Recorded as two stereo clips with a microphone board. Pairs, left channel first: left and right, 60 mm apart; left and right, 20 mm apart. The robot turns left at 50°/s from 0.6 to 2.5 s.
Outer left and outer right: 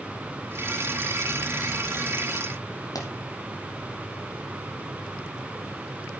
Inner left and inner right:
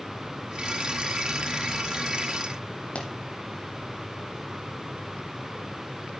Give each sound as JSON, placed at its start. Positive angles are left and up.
{"t": 3.0, "sound": "a pop", "side_deg": 80, "distance_m": 2.5}